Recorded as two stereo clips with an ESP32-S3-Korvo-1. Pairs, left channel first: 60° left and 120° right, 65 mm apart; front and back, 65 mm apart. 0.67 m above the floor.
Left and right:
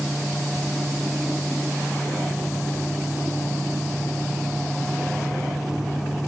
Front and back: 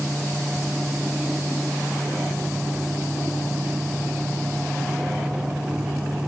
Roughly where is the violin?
I don't hear a violin.